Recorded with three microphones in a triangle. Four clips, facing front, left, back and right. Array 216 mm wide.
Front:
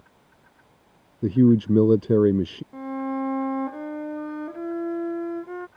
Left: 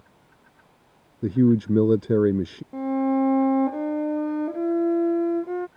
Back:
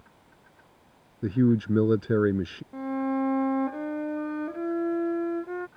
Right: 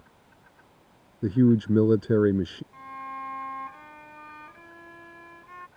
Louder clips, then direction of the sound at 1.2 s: Left 1 dB, front 5 dB; 15° left.